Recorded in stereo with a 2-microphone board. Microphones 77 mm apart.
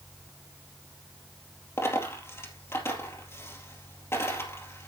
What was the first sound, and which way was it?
A dropped coin, 35° left (ahead or behind).